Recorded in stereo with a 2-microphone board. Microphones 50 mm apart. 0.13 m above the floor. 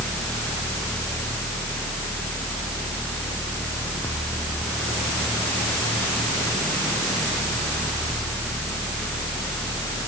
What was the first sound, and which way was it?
Only background noise.